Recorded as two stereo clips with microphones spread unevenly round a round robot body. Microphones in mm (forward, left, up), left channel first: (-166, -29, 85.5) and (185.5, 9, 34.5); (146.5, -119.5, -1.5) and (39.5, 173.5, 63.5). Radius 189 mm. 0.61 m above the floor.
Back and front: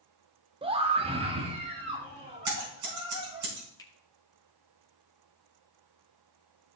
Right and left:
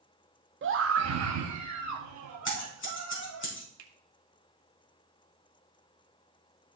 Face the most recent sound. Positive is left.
turn(degrees=100)